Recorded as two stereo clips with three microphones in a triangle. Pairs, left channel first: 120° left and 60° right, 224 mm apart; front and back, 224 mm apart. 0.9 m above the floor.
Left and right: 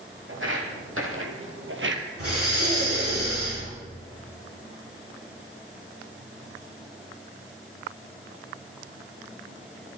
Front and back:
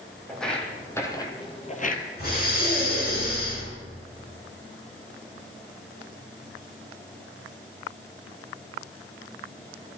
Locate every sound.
0.3 s footsteps: 90° right, 2.5 m; by 2.0 s 40° right, 1.4 m
2.2 s breathing: 50° right, 6.5 m